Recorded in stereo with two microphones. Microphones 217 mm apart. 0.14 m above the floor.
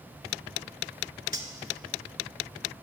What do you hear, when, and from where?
1.3 s cutlery clinking: 40° left (ahead or behind), 1.0 m